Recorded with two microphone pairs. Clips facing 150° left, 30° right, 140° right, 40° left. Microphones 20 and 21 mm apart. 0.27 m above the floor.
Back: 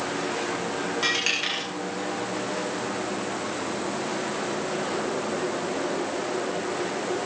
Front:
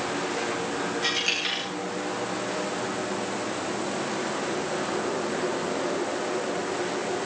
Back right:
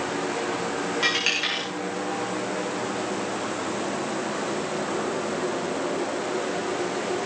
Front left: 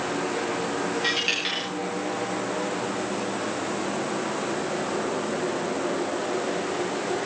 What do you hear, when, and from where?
1.0 s a dropped coin: 155° right, 9.5 m